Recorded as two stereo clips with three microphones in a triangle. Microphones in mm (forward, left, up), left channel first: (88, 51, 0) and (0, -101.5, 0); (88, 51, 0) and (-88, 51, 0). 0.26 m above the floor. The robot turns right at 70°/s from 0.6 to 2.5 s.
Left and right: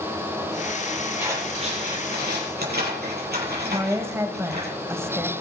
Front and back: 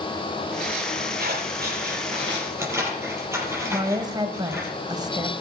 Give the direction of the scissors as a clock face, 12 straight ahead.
7 o'clock.